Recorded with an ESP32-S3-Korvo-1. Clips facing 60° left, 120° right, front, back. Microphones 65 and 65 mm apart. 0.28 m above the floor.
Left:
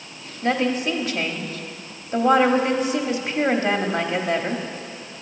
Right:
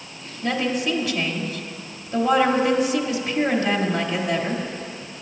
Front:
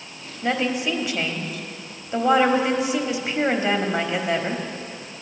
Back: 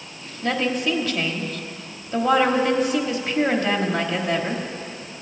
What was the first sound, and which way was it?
A woman speaking, 60° left.